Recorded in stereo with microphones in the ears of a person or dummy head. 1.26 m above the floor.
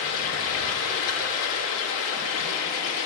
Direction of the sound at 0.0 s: 75° left (ahead or behind).